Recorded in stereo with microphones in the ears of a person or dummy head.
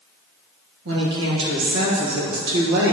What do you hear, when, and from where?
0.8 s a woman speaking: 70° right (ahead or behind), 1.8 m